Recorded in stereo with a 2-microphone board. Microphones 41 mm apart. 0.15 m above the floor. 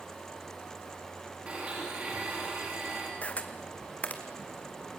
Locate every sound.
1.5 s a blender: 30° right (ahead or behind), 7.5 m
3.2 s a camera shutter: 35° left (ahead or behind), 1.8 m